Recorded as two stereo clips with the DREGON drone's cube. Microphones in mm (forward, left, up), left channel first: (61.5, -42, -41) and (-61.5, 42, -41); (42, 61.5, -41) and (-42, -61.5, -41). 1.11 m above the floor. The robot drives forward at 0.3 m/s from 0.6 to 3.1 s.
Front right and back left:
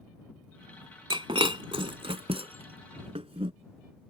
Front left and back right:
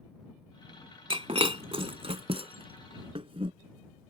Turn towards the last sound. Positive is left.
turn(degrees=-170)